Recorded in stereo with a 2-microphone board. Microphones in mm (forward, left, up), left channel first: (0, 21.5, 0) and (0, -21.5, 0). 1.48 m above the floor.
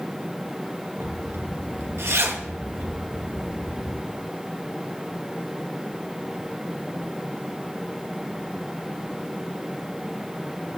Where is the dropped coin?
No dropped coin in this recording.